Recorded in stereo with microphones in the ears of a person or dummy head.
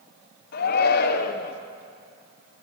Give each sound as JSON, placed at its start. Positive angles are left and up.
{"t": 0.5, "sound": "a shout", "side_deg": 55, "distance_m": 1.1}